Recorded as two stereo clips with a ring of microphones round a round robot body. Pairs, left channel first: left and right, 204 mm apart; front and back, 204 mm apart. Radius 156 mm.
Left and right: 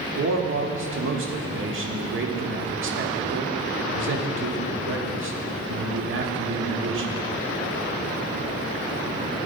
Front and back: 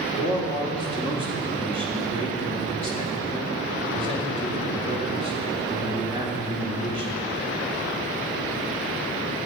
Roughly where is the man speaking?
Ahead right.